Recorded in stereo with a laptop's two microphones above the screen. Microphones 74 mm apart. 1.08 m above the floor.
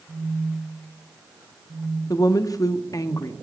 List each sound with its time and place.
0.1 s a phone buzzing: 70° right (ahead or behind), 1.8 m
2.1 s a woman speaking: 55° left (ahead or behind), 0.6 m